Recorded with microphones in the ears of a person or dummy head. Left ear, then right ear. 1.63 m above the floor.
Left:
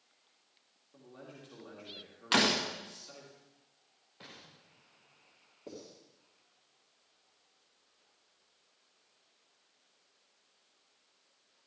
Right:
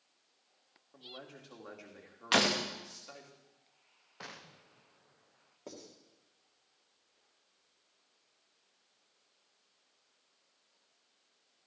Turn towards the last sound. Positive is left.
turn(degrees=-50)  # may be behind; listen again after turning